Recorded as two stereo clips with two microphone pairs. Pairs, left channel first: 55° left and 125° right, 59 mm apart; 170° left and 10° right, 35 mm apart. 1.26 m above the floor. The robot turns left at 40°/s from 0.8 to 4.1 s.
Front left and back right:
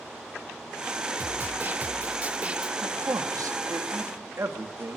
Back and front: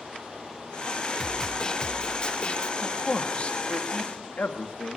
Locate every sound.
1.2 s a snare drum: 120° right, 1.0 m; by 2.7 s straight behind, 1.0 m
2.8 s a man speaking: 115° right, 2 m; by 5.0 s 165° right, 2 m